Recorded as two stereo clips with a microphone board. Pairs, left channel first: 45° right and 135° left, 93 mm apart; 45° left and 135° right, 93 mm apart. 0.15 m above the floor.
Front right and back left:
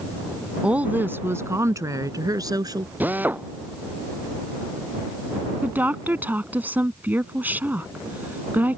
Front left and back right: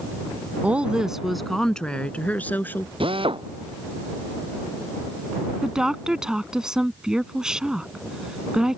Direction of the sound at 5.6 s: 155° left.